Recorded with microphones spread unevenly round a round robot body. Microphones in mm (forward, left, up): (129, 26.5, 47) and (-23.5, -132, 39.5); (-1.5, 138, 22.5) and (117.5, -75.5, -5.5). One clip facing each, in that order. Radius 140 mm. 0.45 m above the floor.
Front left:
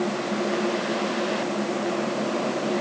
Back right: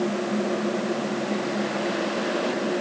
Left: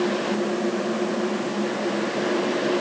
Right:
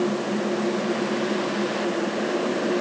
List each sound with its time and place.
Only background noise.